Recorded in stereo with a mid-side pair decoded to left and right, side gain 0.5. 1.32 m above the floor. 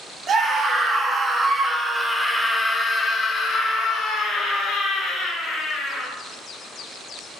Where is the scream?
45° right, 1.4 m; by 6.1 s 75° left, 2 m.